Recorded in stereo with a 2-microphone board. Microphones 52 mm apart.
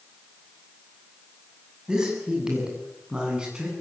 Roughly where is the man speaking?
Centre.